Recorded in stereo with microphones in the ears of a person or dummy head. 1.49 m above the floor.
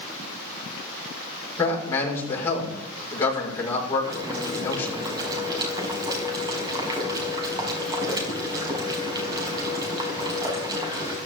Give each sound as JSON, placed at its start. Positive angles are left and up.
{"t": 1.6, "sound": "a man speaking", "side_deg": 15, "distance_m": 6.5}
{"t": 4.0, "sound": "boiling", "side_deg": -20, "distance_m": 5.5}